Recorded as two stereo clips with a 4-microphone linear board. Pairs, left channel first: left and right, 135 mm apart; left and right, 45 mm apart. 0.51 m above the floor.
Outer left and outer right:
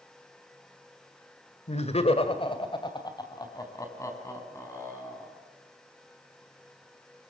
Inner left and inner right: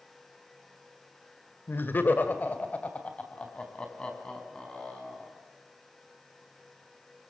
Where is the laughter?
55° left (ahead or behind), 2.0 m; by 5.4 s 15° left (ahead or behind), 6 m.